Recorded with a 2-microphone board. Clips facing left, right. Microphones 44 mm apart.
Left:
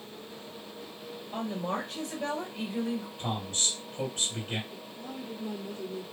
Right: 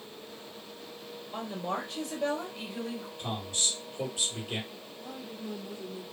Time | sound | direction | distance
1.3 | a woman speaking | 40° left (ahead or behind) | 2.5 m
3.2 | a man speaking | 50° left (ahead or behind) | 2.5 m
4.7 | a woman speaking | 45° left (ahead or behind) | 2 m